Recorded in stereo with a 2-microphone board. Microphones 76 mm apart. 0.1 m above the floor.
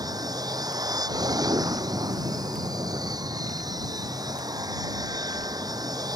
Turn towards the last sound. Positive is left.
turn(degrees=-55)  # may be behind; listen again after turning